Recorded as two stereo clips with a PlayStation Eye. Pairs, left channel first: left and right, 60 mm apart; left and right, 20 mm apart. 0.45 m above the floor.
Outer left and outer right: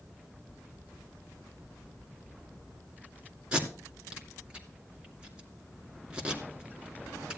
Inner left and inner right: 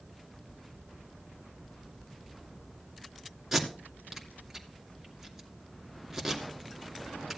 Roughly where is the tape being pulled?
Centre.